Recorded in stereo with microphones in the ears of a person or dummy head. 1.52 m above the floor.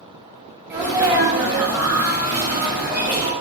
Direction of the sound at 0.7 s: 10° right (ahead or behind).